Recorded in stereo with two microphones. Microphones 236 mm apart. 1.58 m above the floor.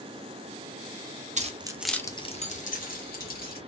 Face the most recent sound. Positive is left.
turn(degrees=40)  # may be behind; listen again after turning